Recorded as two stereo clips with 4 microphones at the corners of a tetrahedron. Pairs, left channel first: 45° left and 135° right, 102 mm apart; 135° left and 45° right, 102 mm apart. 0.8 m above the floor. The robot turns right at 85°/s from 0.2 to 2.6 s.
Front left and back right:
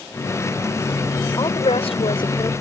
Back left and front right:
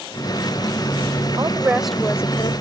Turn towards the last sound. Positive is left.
turn(degrees=105)